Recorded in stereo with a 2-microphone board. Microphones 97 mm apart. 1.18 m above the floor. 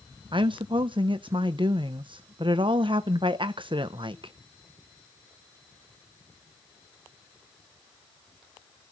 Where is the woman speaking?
60° right (ahead or behind), 0.7 m.